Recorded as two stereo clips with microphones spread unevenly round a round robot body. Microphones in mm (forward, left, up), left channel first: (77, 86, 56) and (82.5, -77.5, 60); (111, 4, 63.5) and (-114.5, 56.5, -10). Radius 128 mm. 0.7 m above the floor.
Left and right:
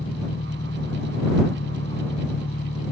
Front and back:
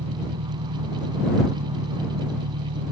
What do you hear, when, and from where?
0.0 s an engine running: 145° left